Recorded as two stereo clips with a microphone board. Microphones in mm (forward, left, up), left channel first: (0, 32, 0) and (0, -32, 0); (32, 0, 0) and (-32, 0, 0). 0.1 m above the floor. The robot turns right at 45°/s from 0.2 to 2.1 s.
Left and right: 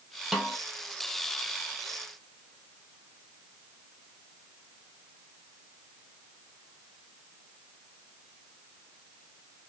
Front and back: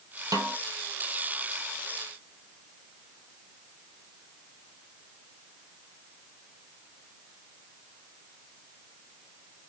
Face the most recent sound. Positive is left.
turn(degrees=-90)